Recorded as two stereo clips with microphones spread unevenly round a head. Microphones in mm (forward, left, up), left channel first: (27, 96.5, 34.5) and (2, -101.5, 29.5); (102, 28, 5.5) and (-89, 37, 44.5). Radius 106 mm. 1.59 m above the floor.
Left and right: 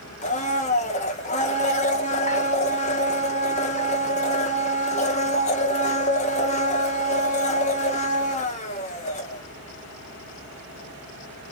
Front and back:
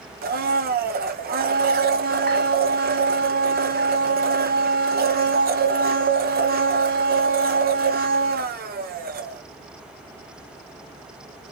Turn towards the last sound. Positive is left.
turn(degrees=140)